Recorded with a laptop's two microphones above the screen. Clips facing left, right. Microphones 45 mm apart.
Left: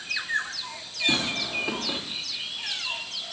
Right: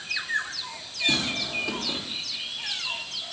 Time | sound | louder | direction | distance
1.1 | tearing paper | left 1 dB | 15° left (ahead or behind) | 3 m